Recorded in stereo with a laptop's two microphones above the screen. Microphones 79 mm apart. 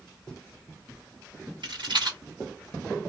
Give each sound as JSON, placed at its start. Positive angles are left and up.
{"t": 1.6, "sound": "a rattle", "side_deg": -70, "distance_m": 1.9}